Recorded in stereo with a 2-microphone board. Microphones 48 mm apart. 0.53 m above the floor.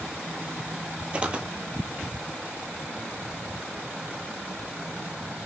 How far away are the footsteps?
About 0.8 m.